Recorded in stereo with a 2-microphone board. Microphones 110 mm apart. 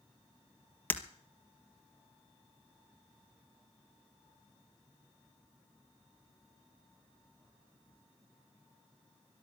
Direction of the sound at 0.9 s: 15° left (ahead or behind).